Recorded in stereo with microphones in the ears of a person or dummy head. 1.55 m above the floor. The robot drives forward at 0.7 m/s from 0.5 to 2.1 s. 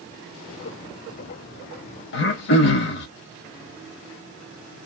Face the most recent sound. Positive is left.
turn(degrees=45)  # may be behind; listen again after turning